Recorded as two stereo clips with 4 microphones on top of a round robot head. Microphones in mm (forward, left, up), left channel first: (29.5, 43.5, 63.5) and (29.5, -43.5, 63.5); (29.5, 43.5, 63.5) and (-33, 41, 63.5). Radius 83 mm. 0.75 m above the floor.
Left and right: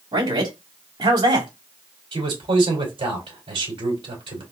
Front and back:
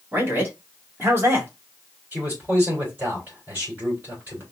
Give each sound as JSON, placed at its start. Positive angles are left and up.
{"t": 0.1, "sound": "a man speaking", "azimuth_deg": -120, "distance_m": 2.0}
{"t": 2.1, "sound": "a man speaking", "azimuth_deg": -110, "distance_m": 3.0}